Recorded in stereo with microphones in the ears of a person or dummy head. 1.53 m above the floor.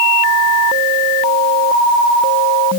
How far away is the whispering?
No whispering in this recording.